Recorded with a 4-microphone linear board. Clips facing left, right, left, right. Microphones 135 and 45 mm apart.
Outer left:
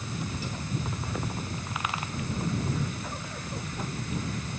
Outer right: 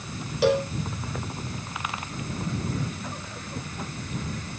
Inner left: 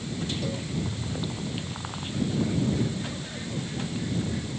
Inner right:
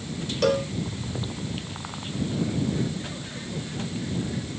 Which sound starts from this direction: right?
A cowbell, at 0.4 s.